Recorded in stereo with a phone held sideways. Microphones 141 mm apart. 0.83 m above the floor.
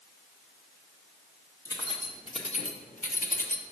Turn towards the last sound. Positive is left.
turn(degrees=70)  # may be behind; listen again after turning